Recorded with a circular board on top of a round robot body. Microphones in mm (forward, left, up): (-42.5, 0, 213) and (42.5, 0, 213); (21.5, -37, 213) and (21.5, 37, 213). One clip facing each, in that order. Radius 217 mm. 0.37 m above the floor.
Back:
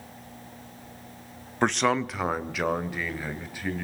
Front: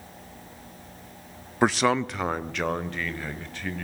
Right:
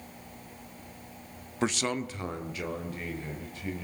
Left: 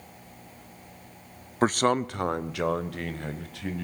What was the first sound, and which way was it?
A man speaking, 80° left.